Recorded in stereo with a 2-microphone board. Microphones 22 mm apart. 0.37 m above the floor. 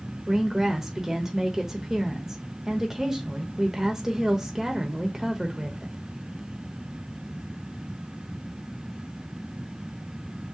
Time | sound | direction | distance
0.3 | a woman speaking | 25° right (ahead or behind) | 0.9 m